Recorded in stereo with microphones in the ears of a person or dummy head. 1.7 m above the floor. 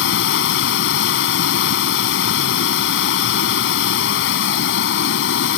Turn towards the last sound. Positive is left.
turn(degrees=65)  # may be behind; listen again after turning